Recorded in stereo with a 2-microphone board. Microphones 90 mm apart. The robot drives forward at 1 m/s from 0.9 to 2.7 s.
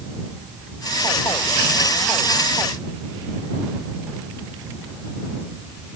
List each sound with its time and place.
Only background noise.